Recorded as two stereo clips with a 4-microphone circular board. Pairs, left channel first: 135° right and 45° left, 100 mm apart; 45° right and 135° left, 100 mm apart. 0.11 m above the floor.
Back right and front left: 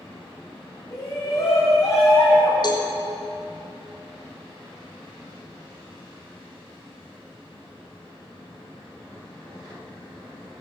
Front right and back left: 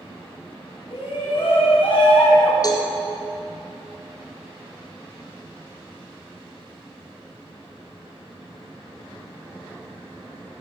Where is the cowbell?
95° right, 3.5 m.